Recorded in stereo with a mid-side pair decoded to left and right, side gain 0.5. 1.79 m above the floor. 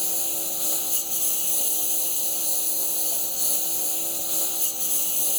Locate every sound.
0.0 s a lawn mower: 10° left